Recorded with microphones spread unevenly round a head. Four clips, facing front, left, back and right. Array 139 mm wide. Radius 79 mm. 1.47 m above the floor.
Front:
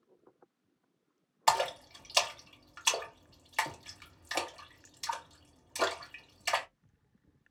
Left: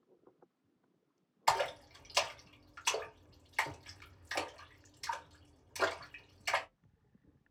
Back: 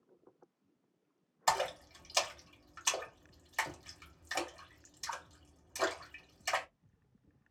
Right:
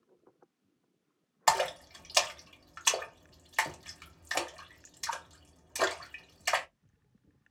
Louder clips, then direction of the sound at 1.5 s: Right 4 dB, front 4 dB; 60° right.